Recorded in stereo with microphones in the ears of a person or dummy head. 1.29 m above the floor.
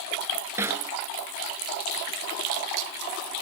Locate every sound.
0.6 s a snare drum: 15° right (ahead or behind)